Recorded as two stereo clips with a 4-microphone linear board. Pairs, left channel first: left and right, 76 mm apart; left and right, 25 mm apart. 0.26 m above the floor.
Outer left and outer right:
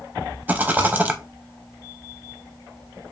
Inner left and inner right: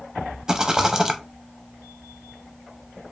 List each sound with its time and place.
0.5 s a rattle: 25° right (ahead or behind), 0.7 m